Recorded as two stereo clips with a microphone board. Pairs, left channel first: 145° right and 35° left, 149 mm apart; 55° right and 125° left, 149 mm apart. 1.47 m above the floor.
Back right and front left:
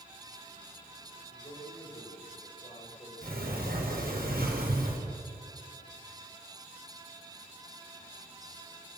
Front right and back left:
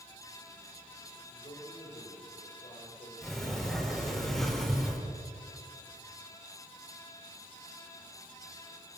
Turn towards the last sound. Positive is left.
turn(degrees=30)